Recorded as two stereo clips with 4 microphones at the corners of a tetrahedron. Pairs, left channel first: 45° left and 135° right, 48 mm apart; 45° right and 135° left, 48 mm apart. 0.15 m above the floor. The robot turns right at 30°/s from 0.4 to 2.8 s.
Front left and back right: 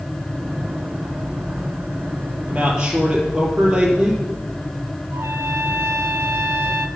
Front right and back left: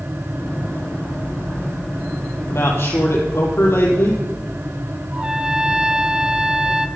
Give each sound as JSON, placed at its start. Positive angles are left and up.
{"t": 2.5, "sound": "a man speaking", "azimuth_deg": -75, "distance_m": 4.0}
{"t": 5.1, "sound": "a trumpet", "azimuth_deg": -155, "distance_m": 0.8}